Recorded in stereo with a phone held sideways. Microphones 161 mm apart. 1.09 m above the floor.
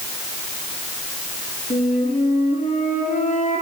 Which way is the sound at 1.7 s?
55° left (ahead or behind).